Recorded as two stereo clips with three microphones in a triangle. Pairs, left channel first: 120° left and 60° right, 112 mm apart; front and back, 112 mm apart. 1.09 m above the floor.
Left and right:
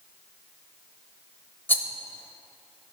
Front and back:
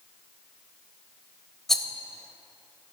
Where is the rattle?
80° left, 0.9 m.